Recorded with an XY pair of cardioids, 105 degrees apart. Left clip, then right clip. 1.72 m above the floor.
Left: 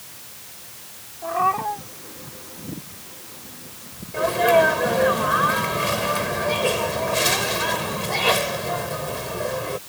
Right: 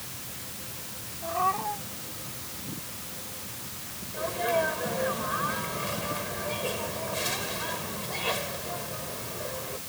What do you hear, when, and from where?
1.2 s a cat meowing: 50° left
4.1 s a sneeze: 70° left